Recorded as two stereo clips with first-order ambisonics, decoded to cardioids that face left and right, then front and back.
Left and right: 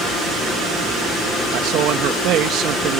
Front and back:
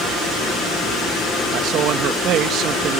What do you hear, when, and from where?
1.5 s a man speaking: 135° right